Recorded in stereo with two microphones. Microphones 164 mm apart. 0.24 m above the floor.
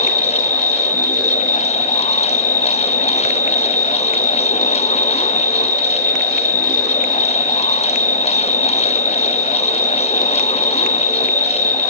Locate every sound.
0.0 s an insect: 50° left (ahead or behind), 1.5 m